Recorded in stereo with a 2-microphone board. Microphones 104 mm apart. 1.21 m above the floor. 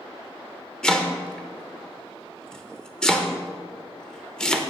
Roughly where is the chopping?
Centre.